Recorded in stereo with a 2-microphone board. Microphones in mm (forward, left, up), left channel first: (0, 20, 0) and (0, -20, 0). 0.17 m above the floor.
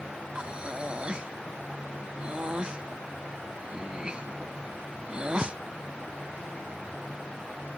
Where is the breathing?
25° right (ahead or behind).